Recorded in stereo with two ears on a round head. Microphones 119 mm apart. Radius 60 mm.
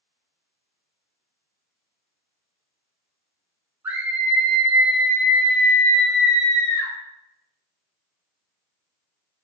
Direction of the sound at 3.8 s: 15° right (ahead or behind).